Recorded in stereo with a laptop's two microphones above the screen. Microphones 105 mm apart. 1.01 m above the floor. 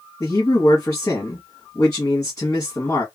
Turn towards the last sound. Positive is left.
turn(degrees=30)  # may be behind; listen again after turning